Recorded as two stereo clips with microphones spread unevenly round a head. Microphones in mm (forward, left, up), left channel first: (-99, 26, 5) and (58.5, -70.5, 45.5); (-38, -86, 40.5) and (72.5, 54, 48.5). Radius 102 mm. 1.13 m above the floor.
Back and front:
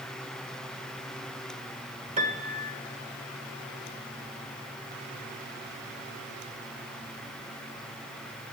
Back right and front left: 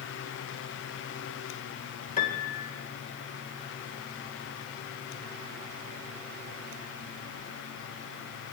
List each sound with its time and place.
2.2 s a piano: 80° right, 1.7 m